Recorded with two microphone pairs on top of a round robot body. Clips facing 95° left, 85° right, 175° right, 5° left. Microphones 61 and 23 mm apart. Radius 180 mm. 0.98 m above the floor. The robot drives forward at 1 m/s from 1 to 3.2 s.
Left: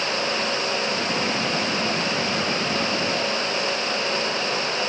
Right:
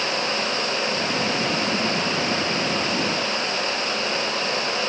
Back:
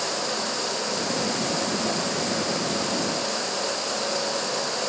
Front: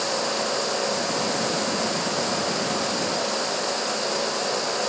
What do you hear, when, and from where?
Only background noise.